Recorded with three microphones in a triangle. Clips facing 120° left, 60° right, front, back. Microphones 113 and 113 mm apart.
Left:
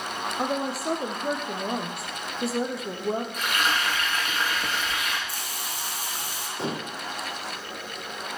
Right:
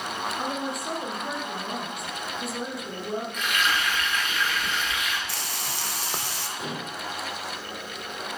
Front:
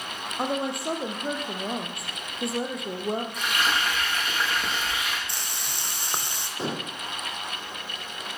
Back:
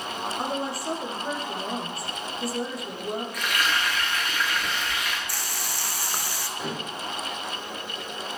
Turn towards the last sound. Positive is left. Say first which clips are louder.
# left 5 dB, front 3 dB
turn(degrees=60)